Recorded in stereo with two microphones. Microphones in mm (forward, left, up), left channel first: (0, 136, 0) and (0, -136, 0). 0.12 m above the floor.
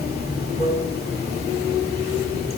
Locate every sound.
0.0 s running water: 35° left (ahead or behind), 2.5 m